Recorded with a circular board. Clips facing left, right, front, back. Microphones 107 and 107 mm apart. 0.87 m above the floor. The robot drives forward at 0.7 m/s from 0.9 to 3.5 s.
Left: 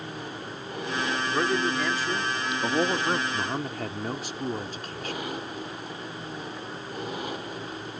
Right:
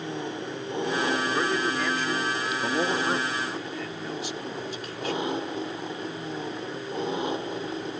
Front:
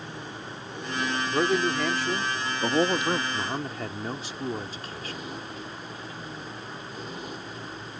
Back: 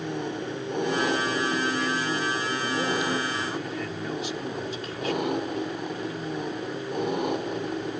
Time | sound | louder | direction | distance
0.0 | an engine running | right 5 dB, back 8 dB | 155° right | ?
1.3 | a man speaking | even, front 2 dB | 5° left | ?
3.3 | a man speaking | left 1 dB, back 1 dB | 50° left | ?